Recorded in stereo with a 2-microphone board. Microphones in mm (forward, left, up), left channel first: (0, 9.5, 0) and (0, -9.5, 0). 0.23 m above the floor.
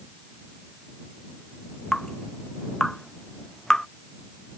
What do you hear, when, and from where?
1.9 s dripping: 25° left (ahead or behind)